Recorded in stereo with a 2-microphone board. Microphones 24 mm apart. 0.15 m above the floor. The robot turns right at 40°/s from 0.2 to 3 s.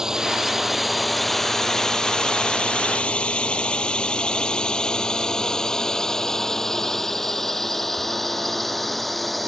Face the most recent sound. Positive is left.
turn(degrees=0)  # may be behind; listen again after turning